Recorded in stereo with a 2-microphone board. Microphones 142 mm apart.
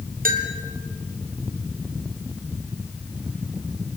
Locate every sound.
0.2 s a bell: 75° right (ahead or behind), 2.0 m